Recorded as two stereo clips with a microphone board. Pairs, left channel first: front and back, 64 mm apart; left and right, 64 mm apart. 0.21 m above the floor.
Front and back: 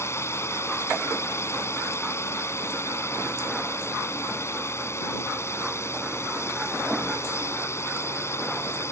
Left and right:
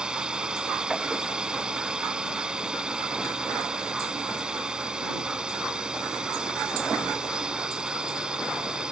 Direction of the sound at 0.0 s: 20° right.